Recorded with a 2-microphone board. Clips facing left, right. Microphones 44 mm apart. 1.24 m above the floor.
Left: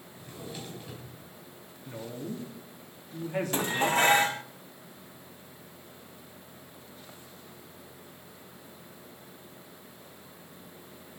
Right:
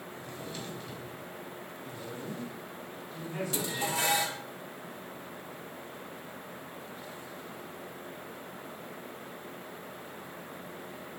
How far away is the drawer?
About 5 m.